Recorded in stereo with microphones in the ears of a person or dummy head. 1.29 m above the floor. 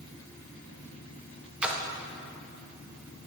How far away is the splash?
About 0.6 m.